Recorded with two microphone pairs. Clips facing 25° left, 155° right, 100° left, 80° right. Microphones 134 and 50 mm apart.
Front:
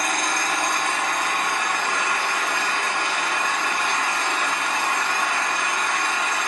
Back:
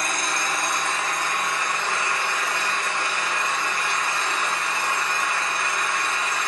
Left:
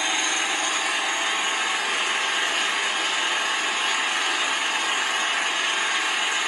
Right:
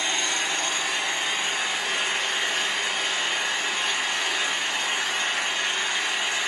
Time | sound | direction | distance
0.0 | an engine running | 20° left | 3.5 m